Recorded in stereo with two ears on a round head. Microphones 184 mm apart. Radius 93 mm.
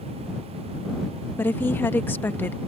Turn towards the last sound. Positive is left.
turn(degrees=10)  # may be behind; listen again after turning